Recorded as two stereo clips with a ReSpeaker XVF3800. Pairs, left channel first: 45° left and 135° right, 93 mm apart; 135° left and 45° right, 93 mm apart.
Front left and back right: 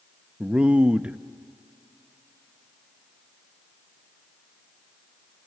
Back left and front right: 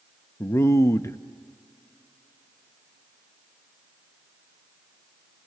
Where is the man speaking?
160° left, 0.5 m.